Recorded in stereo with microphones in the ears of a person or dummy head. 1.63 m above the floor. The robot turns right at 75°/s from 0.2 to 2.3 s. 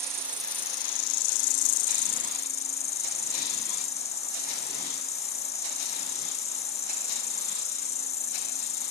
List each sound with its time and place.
0.0 s an insect: 10° right; by 8.9 s 145° left